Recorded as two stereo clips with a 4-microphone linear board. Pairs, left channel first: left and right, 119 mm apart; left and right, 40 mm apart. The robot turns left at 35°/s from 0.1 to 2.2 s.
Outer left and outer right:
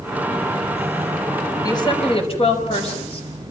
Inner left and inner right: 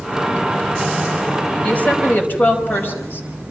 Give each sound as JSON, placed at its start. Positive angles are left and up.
{"t": 1.6, "sound": "a woman speaking", "side_deg": 30, "distance_m": 5.5}